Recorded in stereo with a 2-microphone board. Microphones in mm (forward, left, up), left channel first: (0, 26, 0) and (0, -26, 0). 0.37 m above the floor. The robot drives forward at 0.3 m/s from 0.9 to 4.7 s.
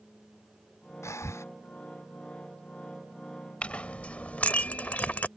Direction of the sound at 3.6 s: 25° left (ahead or behind).